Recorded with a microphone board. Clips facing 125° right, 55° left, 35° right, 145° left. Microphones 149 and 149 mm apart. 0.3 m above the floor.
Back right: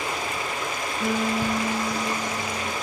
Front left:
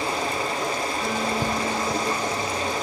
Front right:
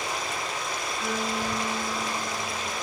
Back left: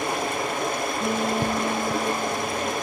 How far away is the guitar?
About 3.5 m.